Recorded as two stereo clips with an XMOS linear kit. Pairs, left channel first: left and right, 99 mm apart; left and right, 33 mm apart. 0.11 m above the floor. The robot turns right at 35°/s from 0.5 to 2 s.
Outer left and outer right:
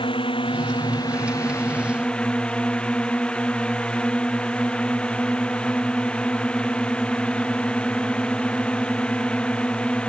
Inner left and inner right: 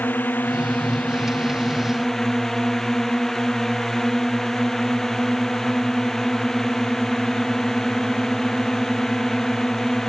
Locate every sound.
0.0 s a drone: 120° left; by 10.1 s 170° left